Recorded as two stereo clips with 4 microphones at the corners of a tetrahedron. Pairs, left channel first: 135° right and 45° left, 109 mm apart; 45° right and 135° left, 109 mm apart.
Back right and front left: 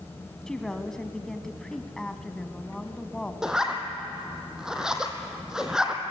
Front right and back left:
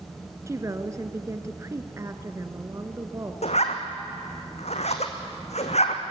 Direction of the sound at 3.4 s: 40° right.